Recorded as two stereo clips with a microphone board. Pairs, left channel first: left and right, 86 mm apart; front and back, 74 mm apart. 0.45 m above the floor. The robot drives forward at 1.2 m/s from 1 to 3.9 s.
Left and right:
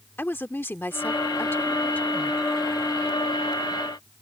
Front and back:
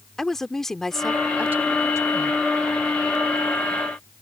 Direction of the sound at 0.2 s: 75° left.